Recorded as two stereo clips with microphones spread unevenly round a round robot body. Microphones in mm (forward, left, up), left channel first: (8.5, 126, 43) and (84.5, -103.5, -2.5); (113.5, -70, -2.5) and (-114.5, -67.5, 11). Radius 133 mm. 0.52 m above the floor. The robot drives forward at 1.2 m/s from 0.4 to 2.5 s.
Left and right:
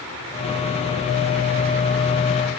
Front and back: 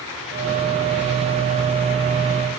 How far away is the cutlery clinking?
No cutlery clinking in this recording.